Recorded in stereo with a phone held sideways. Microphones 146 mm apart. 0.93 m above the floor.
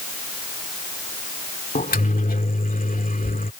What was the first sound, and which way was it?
A microwave, 70° left (ahead or behind).